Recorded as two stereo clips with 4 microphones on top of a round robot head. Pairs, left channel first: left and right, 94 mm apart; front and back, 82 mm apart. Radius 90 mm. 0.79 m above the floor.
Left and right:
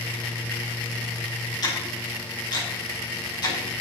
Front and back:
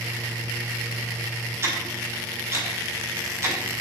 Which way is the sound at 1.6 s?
125° left.